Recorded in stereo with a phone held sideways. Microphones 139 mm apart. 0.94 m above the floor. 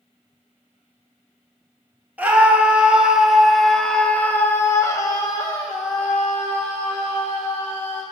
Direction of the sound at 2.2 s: 10° right (ahead or behind).